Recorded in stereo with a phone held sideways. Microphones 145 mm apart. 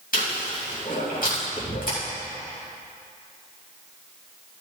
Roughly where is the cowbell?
I don't hear a cowbell.